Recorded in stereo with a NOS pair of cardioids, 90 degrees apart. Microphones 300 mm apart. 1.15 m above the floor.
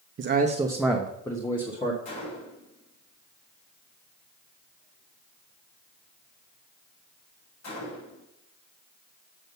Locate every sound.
0.2 s a man speaking: 45° right, 0.8 m; by 1.9 s 20° left, 2.0 m
2.0 s a gunshot: 60° left, 4 m